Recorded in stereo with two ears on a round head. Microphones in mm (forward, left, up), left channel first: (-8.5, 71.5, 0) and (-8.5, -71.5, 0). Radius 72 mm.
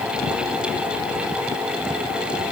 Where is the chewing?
No chewing in this recording.